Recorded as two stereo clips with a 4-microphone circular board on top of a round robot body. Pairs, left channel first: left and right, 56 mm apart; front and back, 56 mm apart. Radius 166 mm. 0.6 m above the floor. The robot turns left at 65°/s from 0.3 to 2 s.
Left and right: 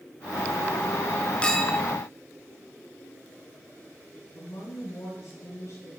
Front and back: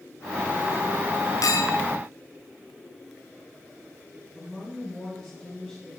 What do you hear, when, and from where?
1.4 s a clink: 20° left, 2.5 m; by 1.8 s 5° right, 2.5 m
4.3 s a woman speaking: 90° left, 8.5 m